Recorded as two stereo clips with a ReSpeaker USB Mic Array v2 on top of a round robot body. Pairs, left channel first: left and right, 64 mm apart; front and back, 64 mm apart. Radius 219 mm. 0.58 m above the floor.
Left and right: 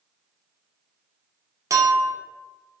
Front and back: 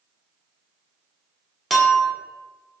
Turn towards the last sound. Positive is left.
turn(degrees=-90)